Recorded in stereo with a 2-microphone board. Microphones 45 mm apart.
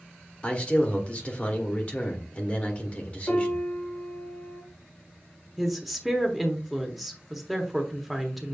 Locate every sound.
0.4 s a man speaking: 30° left (ahead or behind), 1.3 m
3.3 s a piano: 40° left (ahead or behind), 1.7 m
5.6 s a woman speaking: 5° right (ahead or behind), 1.1 m